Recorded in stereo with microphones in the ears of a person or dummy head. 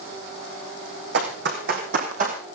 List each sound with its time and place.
1.1 s running footsteps: 65° right (ahead or behind), 4.5 m; by 2.4 s 45° right (ahead or behind), 3.5 m